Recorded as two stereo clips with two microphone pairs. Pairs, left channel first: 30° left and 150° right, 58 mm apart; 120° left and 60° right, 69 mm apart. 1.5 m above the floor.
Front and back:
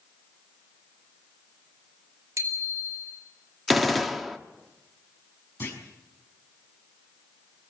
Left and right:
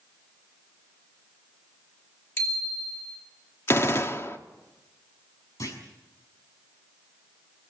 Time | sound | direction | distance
2.4 | a bicycle bell | 175° left | 4.5 m
3.7 | a gunshot | 115° left | 1.1 m
5.6 | a clunk | 80° left | 6 m